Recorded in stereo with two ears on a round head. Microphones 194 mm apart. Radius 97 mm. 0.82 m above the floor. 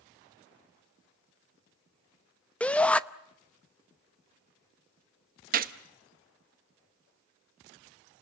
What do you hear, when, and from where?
2.6 s a shout: 5° left (ahead or behind), 0.8 m
5.5 s a gunshot: 40° right (ahead or behind), 1.2 m